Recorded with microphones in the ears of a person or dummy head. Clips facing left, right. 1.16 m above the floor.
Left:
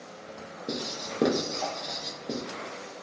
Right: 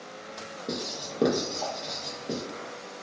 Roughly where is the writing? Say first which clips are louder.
Even; centre.